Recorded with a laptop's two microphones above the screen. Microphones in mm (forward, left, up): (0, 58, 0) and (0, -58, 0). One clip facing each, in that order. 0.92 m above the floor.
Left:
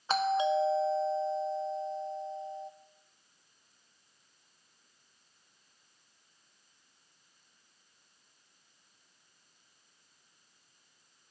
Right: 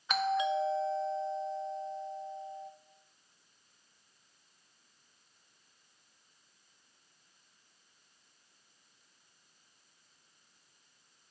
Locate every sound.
0.1 s a doorbell: 30° left (ahead or behind), 0.9 m